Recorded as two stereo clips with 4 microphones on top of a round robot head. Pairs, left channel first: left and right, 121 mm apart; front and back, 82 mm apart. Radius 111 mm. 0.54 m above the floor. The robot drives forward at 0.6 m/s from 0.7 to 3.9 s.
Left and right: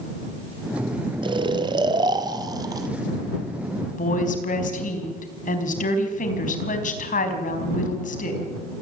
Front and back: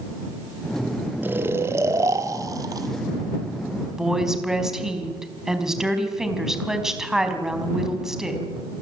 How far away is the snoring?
About 1.7 m.